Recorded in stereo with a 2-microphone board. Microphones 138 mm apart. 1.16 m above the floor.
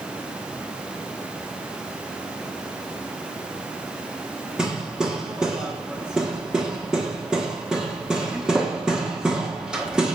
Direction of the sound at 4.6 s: 5° right (ahead or behind).